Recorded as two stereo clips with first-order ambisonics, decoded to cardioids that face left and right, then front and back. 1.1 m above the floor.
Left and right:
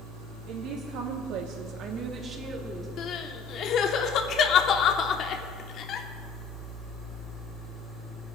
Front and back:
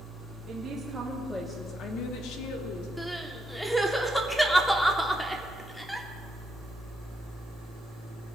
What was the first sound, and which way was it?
A woman speaking, 125° right.